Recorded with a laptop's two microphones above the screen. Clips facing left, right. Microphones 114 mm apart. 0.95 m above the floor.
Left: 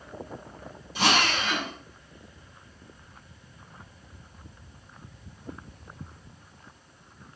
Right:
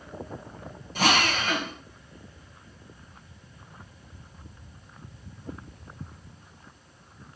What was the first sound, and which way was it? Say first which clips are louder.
A drill: right 1 dB; 45° right (ahead or behind).